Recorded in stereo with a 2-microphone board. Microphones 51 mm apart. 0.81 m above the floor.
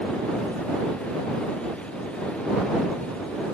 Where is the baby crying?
No baby crying in this recording.